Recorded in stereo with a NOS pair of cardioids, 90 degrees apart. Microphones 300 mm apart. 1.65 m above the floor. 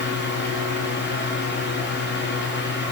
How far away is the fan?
About 5 m.